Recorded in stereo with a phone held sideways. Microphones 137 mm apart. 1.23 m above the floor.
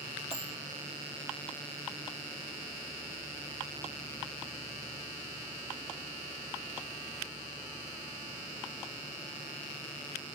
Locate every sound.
0.3 s a dropped coin: 40° right (ahead or behind), 0.9 m